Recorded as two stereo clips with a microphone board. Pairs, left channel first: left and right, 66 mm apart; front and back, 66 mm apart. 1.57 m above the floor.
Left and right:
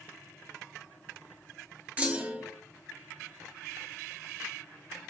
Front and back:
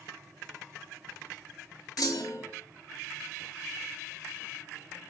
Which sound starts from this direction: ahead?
A clunk, at 2.0 s.